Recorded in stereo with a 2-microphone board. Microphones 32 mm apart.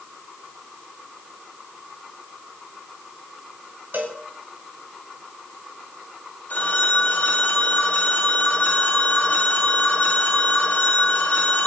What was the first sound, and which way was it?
A cowbell, 70° right (ahead or behind).